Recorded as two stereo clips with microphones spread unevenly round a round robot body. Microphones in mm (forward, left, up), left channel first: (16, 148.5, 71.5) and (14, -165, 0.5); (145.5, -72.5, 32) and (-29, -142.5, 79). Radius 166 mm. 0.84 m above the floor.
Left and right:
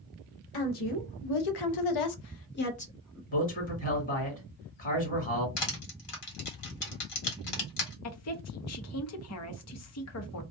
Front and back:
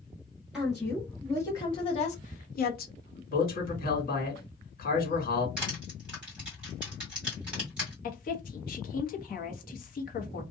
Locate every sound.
0.5 s a woman speaking: 110° left, 1.4 m; by 3.2 s straight ahead, 1.0 m
3.3 s a man speaking: 20° left, 1.8 m
5.6 s crushing: 110° left, 1.7 m
8.0 s a woman speaking: 45° left, 0.9 m